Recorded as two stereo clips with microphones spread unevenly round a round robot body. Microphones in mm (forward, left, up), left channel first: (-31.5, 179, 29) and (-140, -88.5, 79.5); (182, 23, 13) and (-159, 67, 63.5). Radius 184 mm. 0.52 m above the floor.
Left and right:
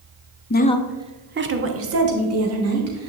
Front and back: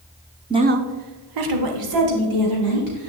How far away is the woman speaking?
About 0.9 m.